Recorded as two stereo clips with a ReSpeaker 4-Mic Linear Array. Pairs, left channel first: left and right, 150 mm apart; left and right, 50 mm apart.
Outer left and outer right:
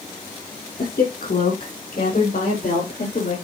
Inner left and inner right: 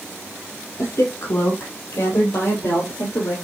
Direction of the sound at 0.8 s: 75° left (ahead or behind).